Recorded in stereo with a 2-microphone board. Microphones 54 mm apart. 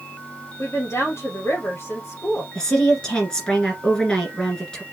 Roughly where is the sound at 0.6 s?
Left.